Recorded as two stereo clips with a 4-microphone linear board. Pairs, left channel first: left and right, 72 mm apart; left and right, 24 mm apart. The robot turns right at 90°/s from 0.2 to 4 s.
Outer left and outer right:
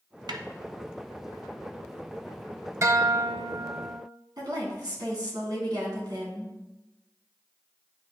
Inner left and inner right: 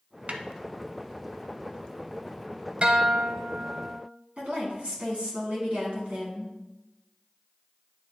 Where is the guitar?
130° right, 0.7 m; by 4.0 s 20° right, 0.7 m.